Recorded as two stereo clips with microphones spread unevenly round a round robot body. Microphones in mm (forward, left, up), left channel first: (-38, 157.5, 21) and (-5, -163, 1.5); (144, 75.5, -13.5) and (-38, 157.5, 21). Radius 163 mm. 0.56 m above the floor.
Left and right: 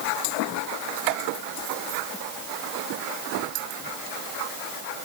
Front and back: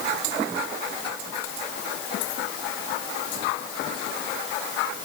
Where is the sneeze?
I don't hear a sneeze.